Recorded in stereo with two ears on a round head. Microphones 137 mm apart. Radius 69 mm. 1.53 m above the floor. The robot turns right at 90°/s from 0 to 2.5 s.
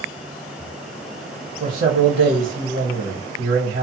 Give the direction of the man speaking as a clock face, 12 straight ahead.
4 o'clock.